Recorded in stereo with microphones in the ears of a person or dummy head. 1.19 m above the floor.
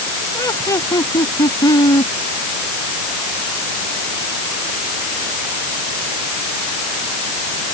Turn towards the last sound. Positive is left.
turn(degrees=20)  # may be behind; listen again after turning